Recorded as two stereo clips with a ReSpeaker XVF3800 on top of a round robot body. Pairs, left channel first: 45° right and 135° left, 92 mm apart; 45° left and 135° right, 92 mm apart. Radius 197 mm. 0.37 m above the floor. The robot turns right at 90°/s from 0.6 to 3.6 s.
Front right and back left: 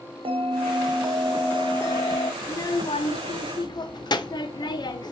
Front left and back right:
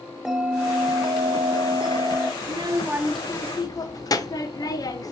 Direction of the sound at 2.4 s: 110° right.